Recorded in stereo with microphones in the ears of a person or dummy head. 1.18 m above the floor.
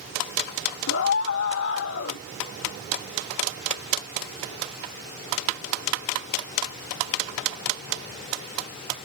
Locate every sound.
0.9 s a scream: 65° left (ahead or behind)